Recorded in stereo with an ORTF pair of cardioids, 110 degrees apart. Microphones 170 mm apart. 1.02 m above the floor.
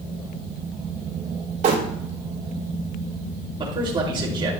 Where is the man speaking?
30° right, 3 m.